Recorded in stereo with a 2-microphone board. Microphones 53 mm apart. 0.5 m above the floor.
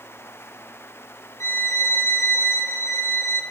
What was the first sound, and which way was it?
A violin, 60° left (ahead or behind).